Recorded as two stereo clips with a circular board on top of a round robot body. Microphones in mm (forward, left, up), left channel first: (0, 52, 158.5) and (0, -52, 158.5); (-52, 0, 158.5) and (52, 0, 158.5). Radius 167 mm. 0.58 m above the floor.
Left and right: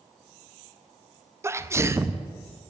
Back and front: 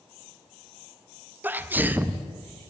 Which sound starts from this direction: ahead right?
A sneeze, at 1.4 s.